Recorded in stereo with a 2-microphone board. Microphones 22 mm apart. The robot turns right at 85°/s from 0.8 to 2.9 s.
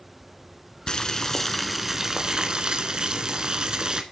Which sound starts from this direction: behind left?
Boiling, at 0.9 s.